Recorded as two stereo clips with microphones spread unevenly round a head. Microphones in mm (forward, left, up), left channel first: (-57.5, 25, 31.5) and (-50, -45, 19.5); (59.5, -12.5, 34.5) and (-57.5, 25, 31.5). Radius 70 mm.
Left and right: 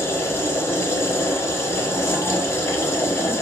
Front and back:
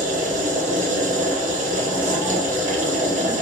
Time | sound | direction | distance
0.0 | a machine running | 155° left | 0.8 m